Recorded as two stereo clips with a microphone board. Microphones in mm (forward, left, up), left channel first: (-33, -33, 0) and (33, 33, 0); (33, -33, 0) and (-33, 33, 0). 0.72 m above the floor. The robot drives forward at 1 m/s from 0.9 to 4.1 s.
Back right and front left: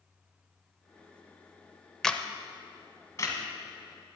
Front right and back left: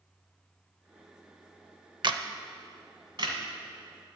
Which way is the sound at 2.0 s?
140° left.